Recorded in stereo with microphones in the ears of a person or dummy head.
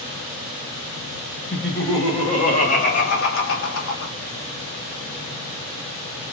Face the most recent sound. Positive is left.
turn(degrees=80)